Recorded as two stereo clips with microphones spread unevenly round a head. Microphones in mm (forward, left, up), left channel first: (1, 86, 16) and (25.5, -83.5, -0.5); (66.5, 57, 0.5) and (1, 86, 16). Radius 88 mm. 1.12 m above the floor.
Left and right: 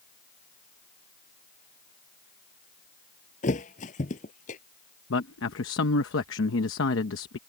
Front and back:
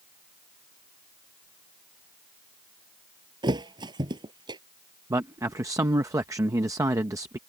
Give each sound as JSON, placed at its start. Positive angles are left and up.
{"t": 3.4, "sound": "a thud", "azimuth_deg": 150}
{"t": 5.1, "sound": "a man speaking", "azimuth_deg": 110}